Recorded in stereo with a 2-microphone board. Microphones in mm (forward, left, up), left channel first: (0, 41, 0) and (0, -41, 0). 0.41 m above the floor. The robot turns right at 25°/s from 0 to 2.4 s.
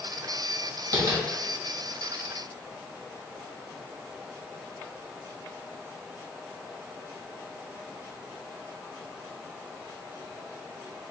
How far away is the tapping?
About 1.0 m.